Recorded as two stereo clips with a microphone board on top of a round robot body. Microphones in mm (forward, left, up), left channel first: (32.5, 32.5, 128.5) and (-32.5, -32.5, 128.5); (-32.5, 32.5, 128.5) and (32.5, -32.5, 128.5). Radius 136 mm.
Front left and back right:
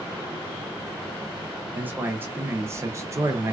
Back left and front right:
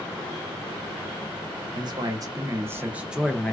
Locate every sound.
1.7 s a man speaking: 65° right, 1.2 m; by 3.5 s 155° right, 0.8 m